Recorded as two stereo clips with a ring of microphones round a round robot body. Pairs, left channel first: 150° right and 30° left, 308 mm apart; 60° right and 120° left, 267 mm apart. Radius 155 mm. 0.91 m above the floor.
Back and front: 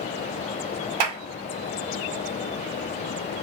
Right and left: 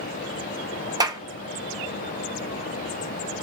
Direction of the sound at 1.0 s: 45° left.